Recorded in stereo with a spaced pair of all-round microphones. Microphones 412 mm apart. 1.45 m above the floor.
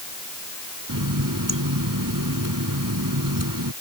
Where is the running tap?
50° right (ahead or behind).